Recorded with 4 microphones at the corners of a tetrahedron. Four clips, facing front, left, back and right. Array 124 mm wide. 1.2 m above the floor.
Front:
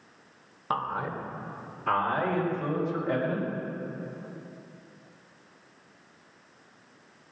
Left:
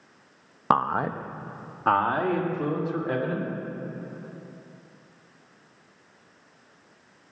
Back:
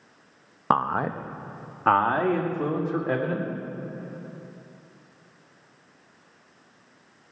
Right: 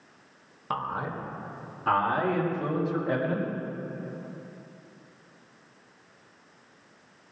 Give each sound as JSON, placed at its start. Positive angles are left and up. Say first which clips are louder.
{"t": 0.7, "sound": "a man speaking", "louder": "left 8 dB, back 7 dB", "azimuth_deg": 130, "distance_m": 0.8}